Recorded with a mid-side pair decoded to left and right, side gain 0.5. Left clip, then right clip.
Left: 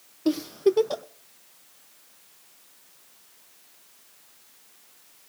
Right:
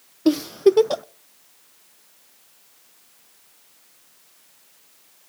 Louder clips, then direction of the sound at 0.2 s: Right 6 dB; 35° right.